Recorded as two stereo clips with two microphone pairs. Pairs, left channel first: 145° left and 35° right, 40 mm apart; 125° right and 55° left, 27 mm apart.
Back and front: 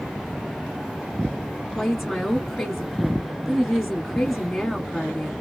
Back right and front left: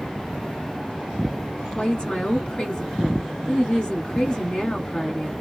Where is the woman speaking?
125° right, 1.4 m.